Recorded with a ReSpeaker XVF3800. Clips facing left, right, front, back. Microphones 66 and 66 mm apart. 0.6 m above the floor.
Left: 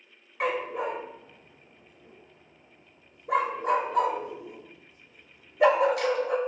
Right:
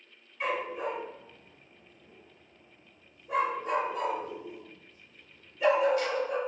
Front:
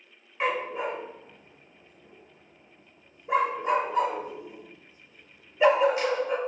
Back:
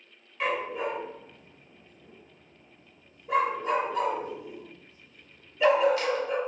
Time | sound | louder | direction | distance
0.4 | a dog barking | left 3 dB, front 1 dB | 65° left | 0.5 m